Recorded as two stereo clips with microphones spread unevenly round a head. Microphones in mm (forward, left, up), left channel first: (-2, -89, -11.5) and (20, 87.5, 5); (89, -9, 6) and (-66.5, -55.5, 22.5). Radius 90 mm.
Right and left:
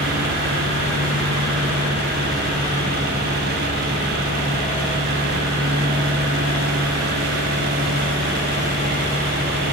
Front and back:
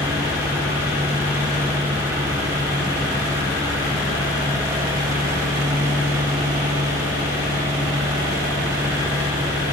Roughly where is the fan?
Behind left.